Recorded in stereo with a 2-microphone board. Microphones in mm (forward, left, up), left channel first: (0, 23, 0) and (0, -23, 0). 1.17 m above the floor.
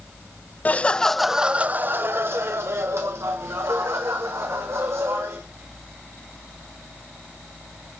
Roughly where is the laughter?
Left.